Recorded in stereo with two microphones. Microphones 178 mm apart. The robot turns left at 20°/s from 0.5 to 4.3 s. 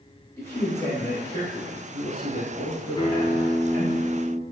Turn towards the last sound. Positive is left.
turn(degrees=0)  # may be behind; listen again after turning